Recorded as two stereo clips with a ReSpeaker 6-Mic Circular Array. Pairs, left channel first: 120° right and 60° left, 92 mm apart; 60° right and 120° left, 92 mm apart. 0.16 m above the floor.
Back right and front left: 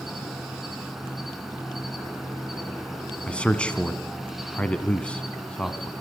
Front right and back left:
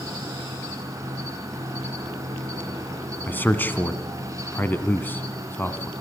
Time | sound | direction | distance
0.0 | an insect | 145° left | 2 m
3.3 | a man speaking | 65° right | 1.0 m